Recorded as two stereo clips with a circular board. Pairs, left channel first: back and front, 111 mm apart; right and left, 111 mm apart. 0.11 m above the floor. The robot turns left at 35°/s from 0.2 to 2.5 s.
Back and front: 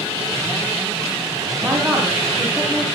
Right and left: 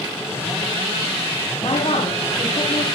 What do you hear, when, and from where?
1.6 s a woman speaking: 75° right, 6.5 m; by 2.9 s 105° right, 6.5 m